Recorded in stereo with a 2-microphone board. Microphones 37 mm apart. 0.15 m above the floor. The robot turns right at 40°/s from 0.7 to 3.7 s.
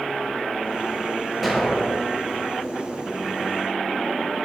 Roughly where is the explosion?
Centre.